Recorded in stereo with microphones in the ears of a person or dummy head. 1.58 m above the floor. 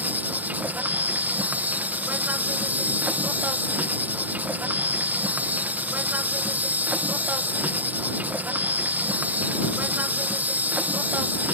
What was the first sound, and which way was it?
An insect, 5° right (ahead or behind).